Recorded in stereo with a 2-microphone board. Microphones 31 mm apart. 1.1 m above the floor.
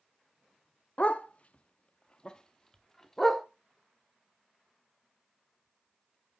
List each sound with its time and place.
1.0 s a dog barking: 40° left (ahead or behind), 0.7 m; by 3.4 s 10° left (ahead or behind), 1.2 m